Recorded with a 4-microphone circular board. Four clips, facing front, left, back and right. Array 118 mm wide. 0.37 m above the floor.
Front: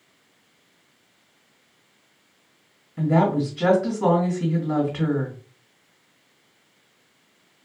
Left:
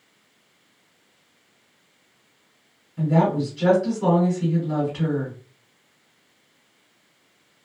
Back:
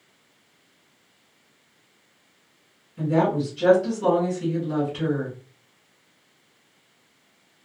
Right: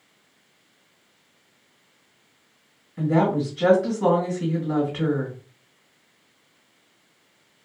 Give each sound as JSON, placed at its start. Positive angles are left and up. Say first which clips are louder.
{"t": 3.0, "sound": "a woman speaking", "louder": "even, front 1 dB", "azimuth_deg": -25, "distance_m": 1.7}